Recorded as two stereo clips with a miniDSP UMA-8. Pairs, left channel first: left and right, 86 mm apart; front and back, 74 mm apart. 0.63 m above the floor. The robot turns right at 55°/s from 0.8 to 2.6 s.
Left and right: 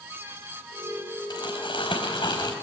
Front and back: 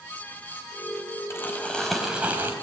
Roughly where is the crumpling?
Ahead left.